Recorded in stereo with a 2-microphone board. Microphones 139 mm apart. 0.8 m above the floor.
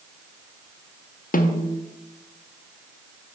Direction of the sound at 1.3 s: 85° left.